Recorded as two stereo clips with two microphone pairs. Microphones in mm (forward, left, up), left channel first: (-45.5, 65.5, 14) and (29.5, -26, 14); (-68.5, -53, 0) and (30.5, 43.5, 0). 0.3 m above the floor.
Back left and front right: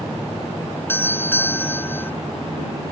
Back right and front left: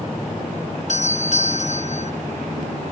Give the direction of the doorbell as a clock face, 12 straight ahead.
5 o'clock.